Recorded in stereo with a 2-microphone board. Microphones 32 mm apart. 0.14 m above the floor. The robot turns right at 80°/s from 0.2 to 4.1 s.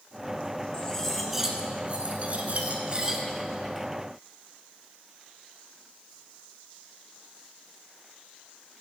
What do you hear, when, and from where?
0.7 s cutlery clinking: 140° left, 0.9 m; by 3.2 s 20° right, 0.9 m